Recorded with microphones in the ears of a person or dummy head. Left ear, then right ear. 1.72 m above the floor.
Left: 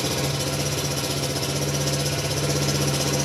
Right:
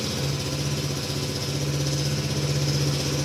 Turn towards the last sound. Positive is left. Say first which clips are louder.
# left 4 dB
turn(degrees=25)  # may be behind; listen again after turning